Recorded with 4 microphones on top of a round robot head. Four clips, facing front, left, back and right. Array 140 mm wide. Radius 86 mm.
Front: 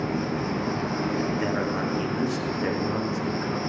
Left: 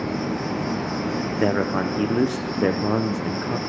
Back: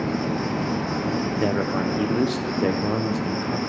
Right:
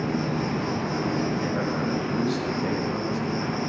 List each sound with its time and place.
0.0 s an insect: 170° left, 5 m
1.4 s a man speaking: 115° left, 1.0 m